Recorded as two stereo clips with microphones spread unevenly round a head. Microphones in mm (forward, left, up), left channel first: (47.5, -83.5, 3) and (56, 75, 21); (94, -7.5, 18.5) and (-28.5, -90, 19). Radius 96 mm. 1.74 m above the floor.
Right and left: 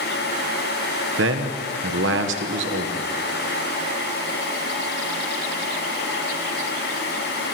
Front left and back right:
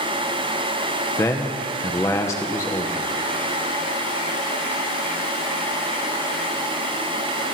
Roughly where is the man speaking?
Left.